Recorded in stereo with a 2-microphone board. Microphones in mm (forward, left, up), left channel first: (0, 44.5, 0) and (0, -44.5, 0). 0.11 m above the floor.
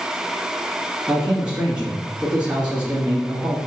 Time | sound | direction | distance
1.1 | a man speaking | 15° right (ahead or behind) | 1.4 m